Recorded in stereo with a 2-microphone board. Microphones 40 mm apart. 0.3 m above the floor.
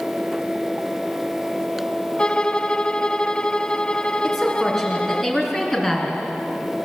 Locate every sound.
2.2 s a violin: 25° left (ahead or behind), 0.7 m
4.2 s a woman speaking: 5° left (ahead or behind), 4 m